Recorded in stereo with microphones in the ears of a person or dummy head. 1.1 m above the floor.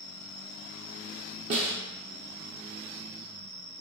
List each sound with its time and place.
0.0 s an insect: 60° right (ahead or behind), 1.8 m
1.5 s a snare drum: 45° right (ahead or behind), 0.6 m